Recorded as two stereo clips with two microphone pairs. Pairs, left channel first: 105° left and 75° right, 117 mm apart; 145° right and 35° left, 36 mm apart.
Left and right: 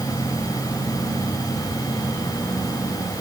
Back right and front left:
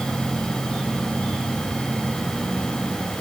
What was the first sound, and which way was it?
Only background noise.